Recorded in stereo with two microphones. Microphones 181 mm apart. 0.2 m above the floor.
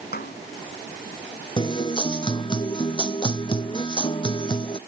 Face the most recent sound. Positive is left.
turn(degrees=25)  # may be behind; listen again after turning